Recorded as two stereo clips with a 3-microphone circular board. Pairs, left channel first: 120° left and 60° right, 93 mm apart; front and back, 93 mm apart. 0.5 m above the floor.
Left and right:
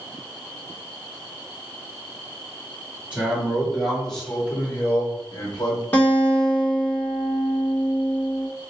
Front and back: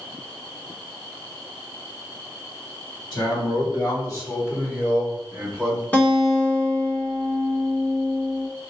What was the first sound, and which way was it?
A man speaking, 15° left.